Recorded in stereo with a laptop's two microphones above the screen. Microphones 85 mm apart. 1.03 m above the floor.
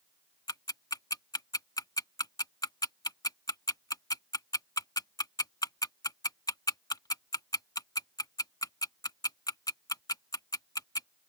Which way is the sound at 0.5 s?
45° left (ahead or behind).